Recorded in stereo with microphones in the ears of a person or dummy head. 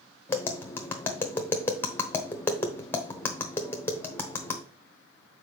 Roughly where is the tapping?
Centre.